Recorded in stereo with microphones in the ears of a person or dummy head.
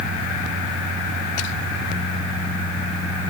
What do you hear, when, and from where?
Only background noise.